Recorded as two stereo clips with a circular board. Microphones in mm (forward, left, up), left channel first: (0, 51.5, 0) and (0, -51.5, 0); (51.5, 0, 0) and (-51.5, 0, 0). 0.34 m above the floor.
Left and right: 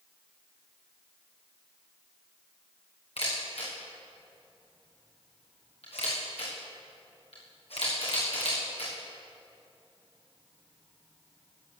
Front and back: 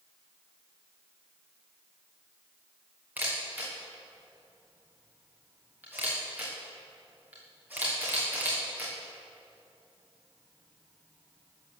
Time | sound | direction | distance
3.2 | a camera shutter | 105° left | 6 m